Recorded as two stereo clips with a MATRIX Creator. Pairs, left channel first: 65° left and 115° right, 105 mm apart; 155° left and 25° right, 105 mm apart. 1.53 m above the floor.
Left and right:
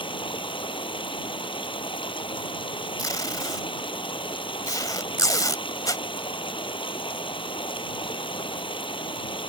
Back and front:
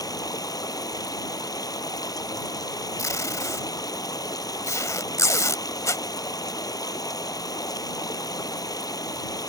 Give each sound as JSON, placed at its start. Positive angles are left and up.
{"t": 0.0, "sound": "running water", "azimuth_deg": 105}
{"t": 3.0, "sound": "tape being pulled", "azimuth_deg": 110}